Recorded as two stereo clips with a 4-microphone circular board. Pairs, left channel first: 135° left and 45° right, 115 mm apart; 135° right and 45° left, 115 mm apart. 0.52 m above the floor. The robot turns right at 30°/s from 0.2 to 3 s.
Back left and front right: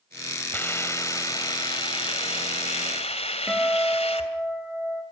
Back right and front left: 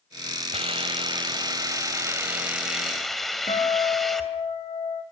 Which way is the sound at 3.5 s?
130° right.